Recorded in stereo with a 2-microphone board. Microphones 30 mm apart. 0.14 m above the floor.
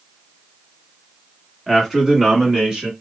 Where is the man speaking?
Centre (ahead or behind), 1.1 m; by 2.9 s 25° right (ahead or behind), 1.3 m.